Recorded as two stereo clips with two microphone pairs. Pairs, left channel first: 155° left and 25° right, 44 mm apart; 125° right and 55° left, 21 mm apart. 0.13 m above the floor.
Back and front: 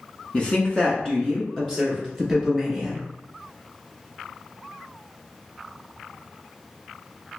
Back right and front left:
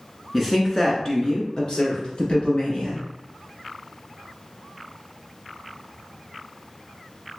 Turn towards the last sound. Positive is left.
turn(degrees=-120)